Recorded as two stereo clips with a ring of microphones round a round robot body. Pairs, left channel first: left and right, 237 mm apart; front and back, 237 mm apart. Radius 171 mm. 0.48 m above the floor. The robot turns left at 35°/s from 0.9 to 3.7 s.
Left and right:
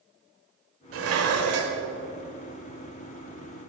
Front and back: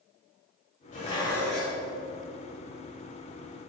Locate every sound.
0.9 s dishes clattering: 65° right, 1.2 m; by 1.8 s 95° right, 1.2 m